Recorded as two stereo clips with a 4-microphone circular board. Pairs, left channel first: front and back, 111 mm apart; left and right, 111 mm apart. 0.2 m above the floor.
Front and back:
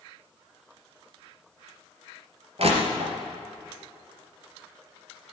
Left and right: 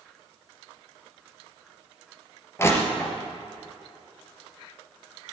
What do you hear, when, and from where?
2.6 s crushing: 155° left, 3 m